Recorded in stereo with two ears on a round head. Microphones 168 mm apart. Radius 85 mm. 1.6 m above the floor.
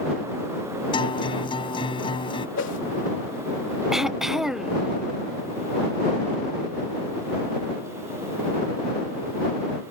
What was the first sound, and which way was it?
A guitar, 30° left (ahead or behind).